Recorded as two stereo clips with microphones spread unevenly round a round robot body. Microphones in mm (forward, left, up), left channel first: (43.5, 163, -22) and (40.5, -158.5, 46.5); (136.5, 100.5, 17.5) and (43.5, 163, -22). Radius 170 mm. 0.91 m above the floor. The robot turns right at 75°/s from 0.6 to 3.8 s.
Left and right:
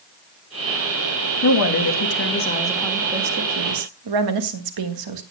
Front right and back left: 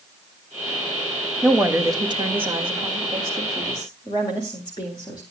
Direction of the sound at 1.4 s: 65° left.